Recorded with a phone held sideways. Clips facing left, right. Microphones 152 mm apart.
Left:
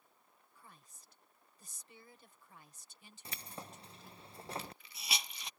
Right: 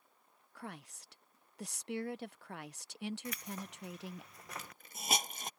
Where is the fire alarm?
No fire alarm in this recording.